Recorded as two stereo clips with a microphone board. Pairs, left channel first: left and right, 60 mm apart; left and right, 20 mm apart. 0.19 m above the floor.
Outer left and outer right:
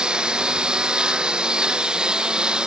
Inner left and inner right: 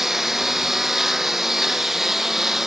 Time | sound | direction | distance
0.0 | a lawn mower | 15° right (ahead or behind) | ?